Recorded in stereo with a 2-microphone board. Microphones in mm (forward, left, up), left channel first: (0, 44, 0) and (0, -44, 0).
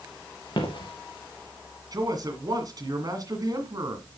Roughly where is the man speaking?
Right.